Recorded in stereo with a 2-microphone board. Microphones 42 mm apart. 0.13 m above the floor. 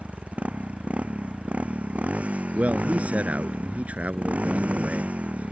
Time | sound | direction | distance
0.0 | a motorcycle | 35° right (ahead or behind) | ?
2.5 | a man speaking | 35° right (ahead or behind) | ?